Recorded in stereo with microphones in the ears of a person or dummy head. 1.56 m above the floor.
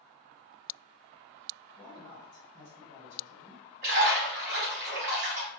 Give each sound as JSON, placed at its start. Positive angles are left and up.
{"t": 1.8, "sound": "a man speaking", "side_deg": 20, "distance_m": 1.3}
{"t": 3.8, "sound": "a splash", "side_deg": -45, "distance_m": 1.2}